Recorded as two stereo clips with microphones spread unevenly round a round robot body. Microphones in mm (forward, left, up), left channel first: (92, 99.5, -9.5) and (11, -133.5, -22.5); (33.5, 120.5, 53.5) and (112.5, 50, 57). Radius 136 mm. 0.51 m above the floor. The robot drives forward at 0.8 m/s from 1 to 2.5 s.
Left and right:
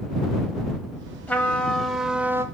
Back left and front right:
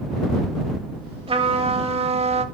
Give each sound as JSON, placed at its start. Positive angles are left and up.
{"t": 1.3, "sound": "a trumpet", "azimuth_deg": -15, "distance_m": 1.5}